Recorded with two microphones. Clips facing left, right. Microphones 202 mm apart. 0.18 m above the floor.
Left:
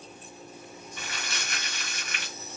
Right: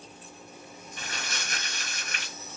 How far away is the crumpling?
About 2 m.